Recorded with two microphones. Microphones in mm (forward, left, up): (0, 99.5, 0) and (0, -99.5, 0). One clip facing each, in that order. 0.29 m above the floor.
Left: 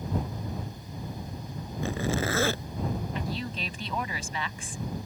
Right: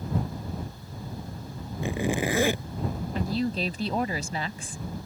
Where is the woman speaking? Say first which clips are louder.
Right 7 dB; 40° right (ahead or behind).